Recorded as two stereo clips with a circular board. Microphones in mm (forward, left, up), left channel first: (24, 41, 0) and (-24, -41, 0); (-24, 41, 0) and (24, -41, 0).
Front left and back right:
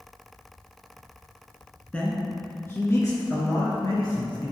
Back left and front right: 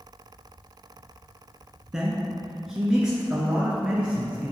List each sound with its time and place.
1.9 s a man speaking: 10° left, 1.2 m; by 4.5 s 25° left, 2 m